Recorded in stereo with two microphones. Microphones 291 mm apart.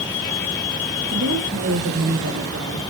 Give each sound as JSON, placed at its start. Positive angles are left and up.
{"t": 1.1, "sound": "a woman speaking", "side_deg": -55, "distance_m": 8.0}